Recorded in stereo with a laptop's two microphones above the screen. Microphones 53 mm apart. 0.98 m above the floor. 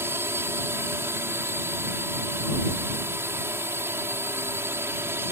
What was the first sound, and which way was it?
A drone, 55° right (ahead or behind).